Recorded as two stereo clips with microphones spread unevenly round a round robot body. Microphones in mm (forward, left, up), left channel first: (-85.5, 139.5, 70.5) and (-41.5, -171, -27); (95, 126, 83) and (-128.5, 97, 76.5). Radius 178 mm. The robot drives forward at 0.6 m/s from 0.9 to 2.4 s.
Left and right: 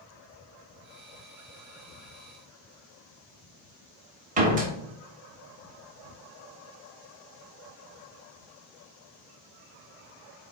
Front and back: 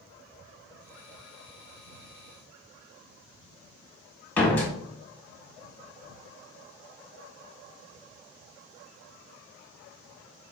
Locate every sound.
4.4 s a door slam: 75° right, 0.7 m